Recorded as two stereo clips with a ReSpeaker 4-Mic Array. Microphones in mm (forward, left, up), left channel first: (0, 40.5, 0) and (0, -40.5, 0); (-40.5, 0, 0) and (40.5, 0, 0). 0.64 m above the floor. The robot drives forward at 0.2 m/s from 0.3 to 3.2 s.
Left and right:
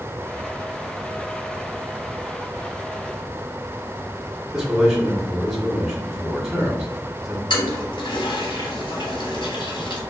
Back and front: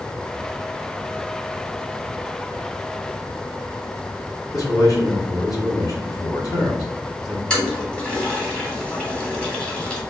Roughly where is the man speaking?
Behind.